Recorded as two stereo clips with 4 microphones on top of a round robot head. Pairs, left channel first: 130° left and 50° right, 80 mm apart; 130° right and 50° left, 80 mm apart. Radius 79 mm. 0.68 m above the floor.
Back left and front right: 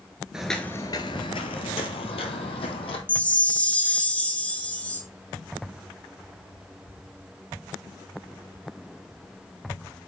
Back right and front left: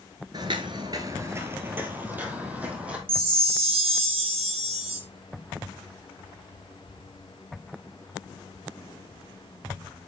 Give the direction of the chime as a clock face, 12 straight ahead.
10 o'clock.